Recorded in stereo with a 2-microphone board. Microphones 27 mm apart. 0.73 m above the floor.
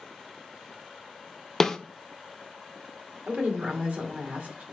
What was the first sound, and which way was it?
A snare drum, 20° left (ahead or behind).